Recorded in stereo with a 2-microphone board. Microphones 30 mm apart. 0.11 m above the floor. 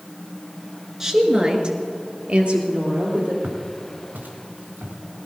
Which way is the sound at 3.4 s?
75° right (ahead or behind).